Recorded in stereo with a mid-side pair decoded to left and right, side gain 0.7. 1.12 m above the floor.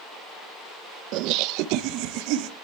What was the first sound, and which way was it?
Laughter, 65° right.